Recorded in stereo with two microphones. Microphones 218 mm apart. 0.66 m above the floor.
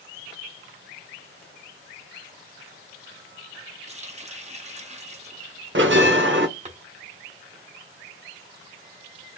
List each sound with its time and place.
3.9 s a running tap: 30° right (ahead or behind), 0.8 m
5.8 s a bell: 60° right (ahead or behind), 0.8 m